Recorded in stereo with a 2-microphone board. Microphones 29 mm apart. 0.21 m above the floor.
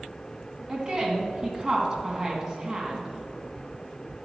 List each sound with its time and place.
0.7 s a woman speaking: 30° right (ahead or behind), 1.6 m